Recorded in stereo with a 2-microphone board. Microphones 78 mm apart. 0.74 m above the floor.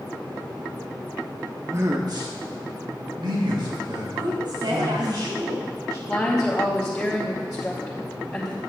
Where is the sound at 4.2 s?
70° right (ahead or behind), 4.5 m.